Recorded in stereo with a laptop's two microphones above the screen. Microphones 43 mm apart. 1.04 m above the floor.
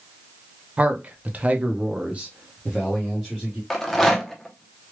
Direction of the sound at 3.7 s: 5° left (ahead or behind).